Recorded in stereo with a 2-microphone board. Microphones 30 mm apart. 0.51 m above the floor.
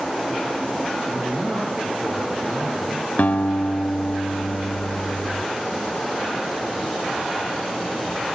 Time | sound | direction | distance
1.1 | a man speaking | 75° right (ahead or behind) | 8 m
3.2 | a guitar | 65° left (ahead or behind) | 1.5 m